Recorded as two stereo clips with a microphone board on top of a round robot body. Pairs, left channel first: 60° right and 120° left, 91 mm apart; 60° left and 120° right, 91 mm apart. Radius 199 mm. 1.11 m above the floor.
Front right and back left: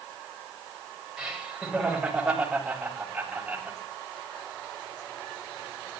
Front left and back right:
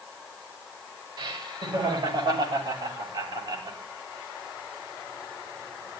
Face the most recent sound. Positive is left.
turn(degrees=-160)